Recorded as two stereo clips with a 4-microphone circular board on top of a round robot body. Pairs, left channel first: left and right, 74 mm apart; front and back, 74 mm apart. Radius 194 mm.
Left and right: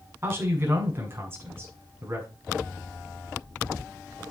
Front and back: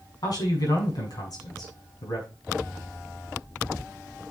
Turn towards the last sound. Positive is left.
turn(degrees=-30)